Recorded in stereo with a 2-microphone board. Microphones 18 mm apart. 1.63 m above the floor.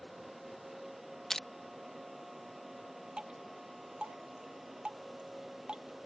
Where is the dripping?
70° right (ahead or behind).